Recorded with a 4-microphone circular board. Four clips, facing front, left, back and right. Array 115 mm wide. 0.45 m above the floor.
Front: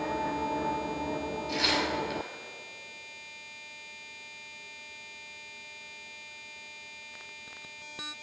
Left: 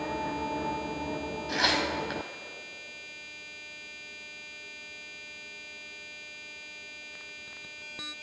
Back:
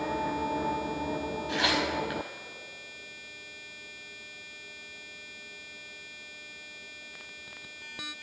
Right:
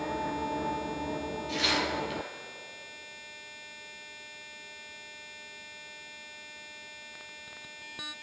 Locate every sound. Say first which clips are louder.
1.5 s tearing paper: left 2 dB, back 1 dB; 115° left, 1.1 m